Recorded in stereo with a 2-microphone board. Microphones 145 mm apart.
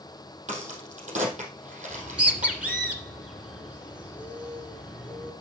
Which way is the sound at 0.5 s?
55° right (ahead or behind).